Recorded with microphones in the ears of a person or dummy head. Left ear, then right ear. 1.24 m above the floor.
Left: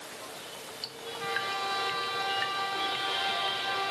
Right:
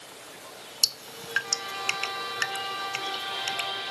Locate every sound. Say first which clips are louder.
0.8 s dripping: right 7 dB; 85° right